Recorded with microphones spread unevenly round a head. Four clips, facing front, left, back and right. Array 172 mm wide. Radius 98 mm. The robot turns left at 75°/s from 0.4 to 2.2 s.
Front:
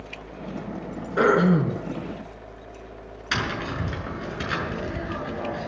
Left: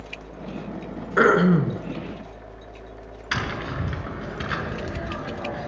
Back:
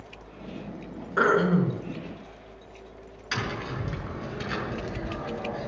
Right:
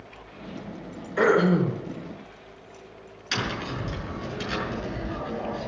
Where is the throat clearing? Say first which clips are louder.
Left 2 dB, front 3 dB; 90° left, 3 m; by 1.8 s 40° left, 3 m.